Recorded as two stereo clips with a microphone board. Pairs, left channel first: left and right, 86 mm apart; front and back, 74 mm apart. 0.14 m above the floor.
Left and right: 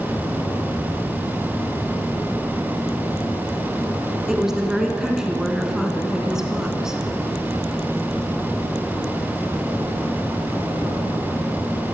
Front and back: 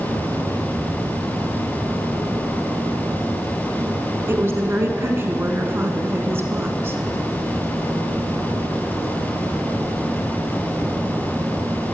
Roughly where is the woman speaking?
Behind.